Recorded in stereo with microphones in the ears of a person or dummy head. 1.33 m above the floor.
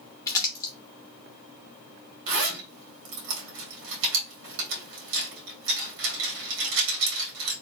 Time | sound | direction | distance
0.3 | crumpling | 15° left (ahead or behind) | 0.8 m
2.3 | a zipper | 65° right (ahead or behind) | 1.8 m